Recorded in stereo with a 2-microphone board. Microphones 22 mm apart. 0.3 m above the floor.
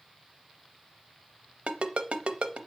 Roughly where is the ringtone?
Right.